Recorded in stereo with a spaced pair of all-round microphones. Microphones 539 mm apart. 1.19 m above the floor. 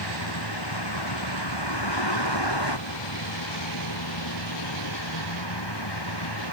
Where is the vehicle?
45° left (ahead or behind).